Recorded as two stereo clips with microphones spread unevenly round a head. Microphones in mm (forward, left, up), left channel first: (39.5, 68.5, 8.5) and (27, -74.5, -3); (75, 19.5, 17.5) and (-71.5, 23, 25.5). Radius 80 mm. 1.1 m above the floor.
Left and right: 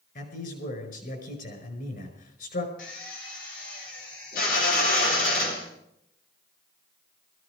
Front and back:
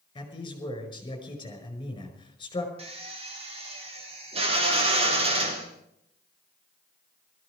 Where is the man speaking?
60° left, 5 m.